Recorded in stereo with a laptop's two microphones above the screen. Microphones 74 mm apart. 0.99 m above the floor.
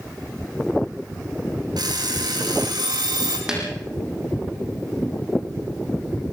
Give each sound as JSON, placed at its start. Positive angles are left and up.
{"t": 1.8, "sound": "an alarm clock", "side_deg": -75, "distance_m": 5.5}
{"t": 3.5, "sound": "a snare drum", "side_deg": -10, "distance_m": 6.5}